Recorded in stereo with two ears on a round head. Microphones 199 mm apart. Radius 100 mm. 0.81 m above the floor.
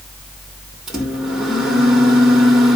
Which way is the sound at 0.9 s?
Centre (ahead or behind).